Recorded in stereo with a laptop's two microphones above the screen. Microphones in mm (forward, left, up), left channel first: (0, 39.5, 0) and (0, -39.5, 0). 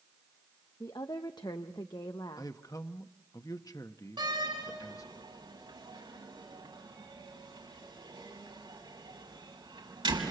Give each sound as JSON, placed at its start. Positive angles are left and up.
{"t": 0.8, "sound": "a woman speaking", "side_deg": 60, "distance_m": 0.8}
{"t": 2.4, "sound": "a man speaking", "side_deg": 50, "distance_m": 0.9}
{"t": 4.2, "sound": "a door slam", "side_deg": -80, "distance_m": 5.5}